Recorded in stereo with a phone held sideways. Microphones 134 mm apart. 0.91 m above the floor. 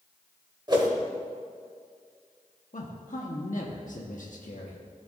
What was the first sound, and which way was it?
A whoosh, 35° right (ahead or behind).